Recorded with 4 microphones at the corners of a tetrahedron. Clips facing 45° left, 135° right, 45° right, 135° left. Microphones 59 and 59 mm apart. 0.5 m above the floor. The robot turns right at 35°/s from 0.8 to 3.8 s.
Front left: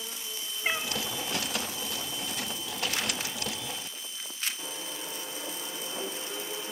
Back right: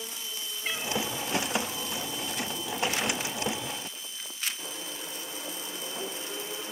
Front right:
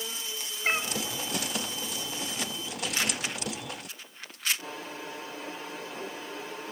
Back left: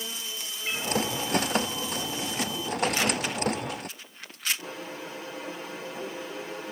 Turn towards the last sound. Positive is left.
turn(degrees=90)